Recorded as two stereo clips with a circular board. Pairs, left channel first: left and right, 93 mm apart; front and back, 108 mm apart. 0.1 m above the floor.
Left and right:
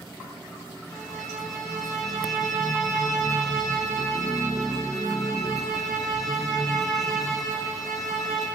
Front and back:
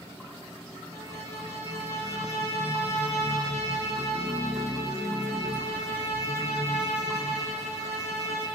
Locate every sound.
0.9 s a violin: straight ahead, 5.5 m